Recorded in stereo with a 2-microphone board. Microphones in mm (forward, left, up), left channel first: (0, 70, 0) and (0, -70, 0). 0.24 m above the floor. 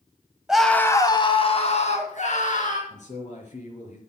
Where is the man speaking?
60° left (ahead or behind), 4.5 m.